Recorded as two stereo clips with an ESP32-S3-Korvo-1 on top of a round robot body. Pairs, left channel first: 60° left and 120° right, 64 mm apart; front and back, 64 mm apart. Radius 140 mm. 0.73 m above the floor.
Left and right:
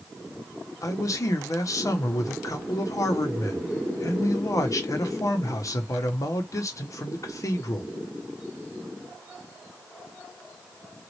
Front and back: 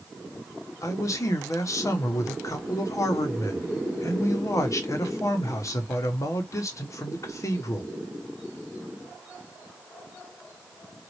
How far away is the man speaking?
About 1.3 m.